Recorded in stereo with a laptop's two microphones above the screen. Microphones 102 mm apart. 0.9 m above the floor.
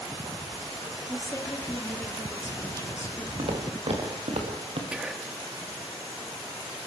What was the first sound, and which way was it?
A woman speaking, 30° left (ahead or behind).